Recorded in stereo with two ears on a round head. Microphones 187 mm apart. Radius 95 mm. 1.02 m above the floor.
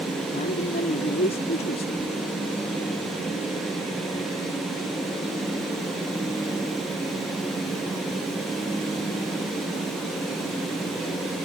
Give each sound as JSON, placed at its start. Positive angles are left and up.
{"t": 0.3, "sound": "a man speaking", "side_deg": 40}